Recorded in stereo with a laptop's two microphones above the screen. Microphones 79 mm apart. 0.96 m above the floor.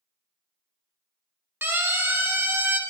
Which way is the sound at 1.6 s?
30° right (ahead or behind).